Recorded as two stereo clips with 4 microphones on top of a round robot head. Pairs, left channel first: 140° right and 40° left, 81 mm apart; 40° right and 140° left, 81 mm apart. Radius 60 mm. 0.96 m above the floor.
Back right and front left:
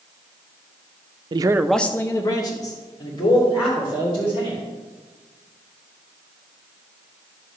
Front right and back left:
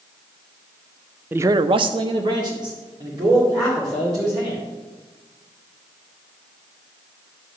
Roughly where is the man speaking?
Left.